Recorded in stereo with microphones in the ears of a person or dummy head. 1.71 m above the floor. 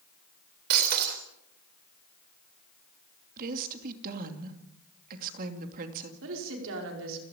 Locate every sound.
0.7 s breaking glass: 55° right (ahead or behind), 3.5 m
3.4 s a woman speaking: 50° right (ahead or behind), 2.5 m
6.2 s a woman speaking: 75° right (ahead or behind), 5.5 m